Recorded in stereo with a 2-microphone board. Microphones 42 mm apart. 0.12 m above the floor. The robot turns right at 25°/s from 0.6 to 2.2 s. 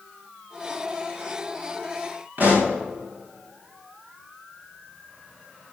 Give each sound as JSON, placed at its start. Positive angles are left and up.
{"t": 2.4, "sound": "a pop", "side_deg": -50, "distance_m": 5.0}